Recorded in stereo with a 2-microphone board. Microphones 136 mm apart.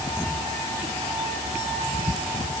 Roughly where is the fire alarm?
No fire alarm in this recording.